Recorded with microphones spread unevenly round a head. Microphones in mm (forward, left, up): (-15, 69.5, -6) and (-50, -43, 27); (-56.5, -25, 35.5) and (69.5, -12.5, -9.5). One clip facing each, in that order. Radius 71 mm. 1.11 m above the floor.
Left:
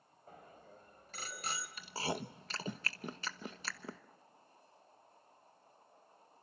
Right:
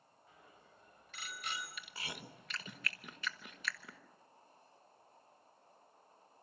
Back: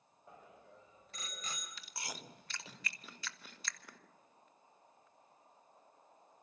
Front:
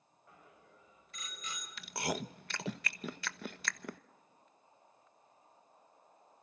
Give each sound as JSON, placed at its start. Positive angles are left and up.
{"t": 0.3, "sound": "a bicycle bell", "azimuth_deg": 120, "distance_m": 5.0}
{"t": 1.8, "sound": "chewing", "azimuth_deg": 15, "distance_m": 1.1}